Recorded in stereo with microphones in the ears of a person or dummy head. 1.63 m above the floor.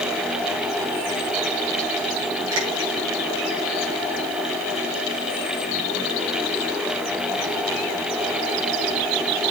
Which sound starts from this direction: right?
A finger snap, at 2.5 s.